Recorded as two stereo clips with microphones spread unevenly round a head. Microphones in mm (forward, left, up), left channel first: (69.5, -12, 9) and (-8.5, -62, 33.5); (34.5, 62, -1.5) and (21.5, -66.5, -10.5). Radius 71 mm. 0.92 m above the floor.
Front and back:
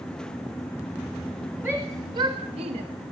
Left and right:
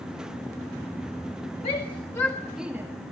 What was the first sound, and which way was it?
A shout, 135° left.